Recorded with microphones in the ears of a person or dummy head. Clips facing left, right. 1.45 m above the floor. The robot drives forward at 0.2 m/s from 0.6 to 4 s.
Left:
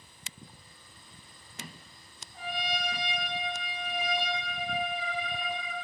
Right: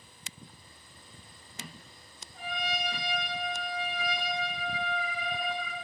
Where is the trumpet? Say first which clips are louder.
Even; 50° left (ahead or behind), 1.5 m; by 5.8 s 60° left (ahead or behind), 1.3 m.